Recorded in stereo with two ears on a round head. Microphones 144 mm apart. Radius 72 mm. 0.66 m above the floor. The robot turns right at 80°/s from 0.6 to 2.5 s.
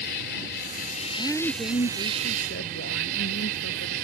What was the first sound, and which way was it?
An insect, 95° left.